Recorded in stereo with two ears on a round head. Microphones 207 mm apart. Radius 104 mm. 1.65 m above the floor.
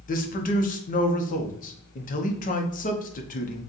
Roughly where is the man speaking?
Left.